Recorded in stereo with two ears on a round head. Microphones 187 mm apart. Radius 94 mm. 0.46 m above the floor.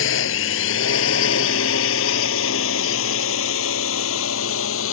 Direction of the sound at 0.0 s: 65° left (ahead or behind).